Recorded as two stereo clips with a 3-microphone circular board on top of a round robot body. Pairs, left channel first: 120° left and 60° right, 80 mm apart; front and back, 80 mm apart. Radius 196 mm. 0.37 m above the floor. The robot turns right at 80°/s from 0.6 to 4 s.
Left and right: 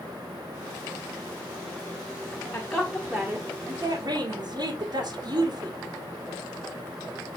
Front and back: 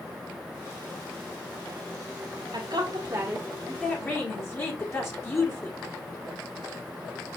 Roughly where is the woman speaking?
Behind.